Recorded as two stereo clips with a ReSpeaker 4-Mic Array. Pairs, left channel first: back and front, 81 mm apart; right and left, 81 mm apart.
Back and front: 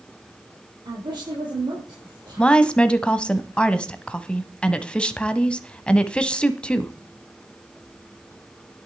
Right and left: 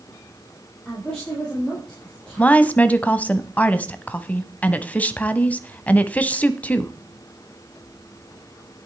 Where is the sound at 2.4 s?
125° right, 1.0 m.